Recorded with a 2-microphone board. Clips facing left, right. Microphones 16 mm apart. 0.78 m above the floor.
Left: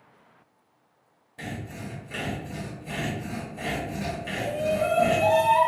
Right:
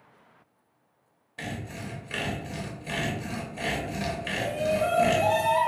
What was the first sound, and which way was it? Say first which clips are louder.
Sawing: even; 35° right (ahead or behind).